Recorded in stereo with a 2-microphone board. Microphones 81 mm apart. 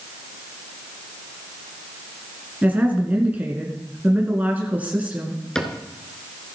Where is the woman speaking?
20° right (ahead or behind), 1.7 m.